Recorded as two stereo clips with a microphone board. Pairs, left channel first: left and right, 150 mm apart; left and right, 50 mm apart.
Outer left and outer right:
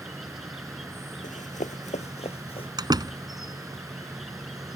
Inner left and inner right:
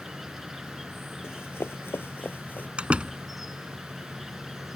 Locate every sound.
0.0 s an insect: centre (ahead or behind)
1.2 s running footsteps: 60° left (ahead or behind); by 2.7 s 40° left (ahead or behind)
2.8 s a door slam: 25° right (ahead or behind)